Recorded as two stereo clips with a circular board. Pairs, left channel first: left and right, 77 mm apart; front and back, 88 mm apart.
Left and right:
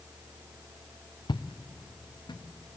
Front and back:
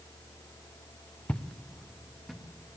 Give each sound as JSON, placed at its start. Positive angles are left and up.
{"t": 1.3, "sound": "footsteps", "azimuth_deg": 80, "distance_m": 1.1}